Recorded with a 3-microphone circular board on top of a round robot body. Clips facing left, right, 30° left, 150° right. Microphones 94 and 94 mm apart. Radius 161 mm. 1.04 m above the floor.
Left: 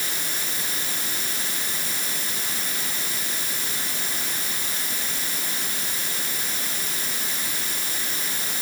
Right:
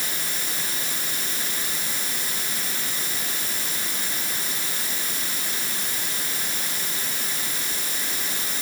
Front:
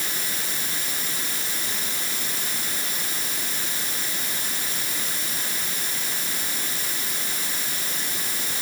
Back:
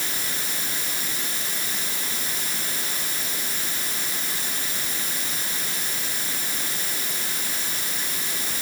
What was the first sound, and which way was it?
Only background noise.